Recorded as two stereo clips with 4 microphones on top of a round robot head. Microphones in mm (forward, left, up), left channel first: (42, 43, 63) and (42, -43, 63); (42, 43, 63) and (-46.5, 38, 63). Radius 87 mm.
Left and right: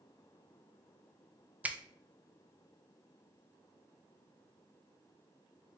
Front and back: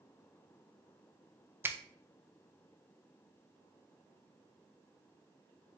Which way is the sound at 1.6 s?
145° right.